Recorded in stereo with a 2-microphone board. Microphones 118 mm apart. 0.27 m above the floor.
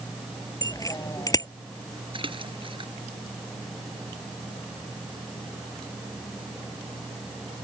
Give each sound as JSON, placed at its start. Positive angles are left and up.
{"t": 0.6, "sound": "a bicycle bell", "side_deg": 30}
{"t": 2.1, "sound": "a splash", "side_deg": -45}